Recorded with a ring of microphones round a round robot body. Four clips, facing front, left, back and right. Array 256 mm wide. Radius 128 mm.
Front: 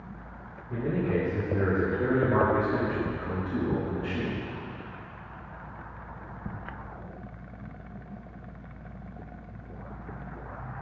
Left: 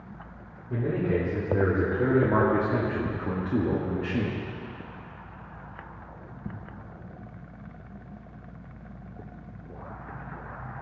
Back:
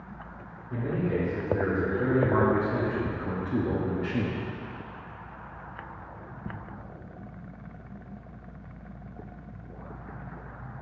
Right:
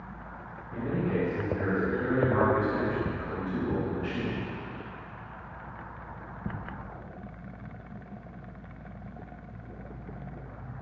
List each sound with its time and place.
0.7 s a man speaking: 75° left, 3 m; by 4.4 s 140° left, 1.3 m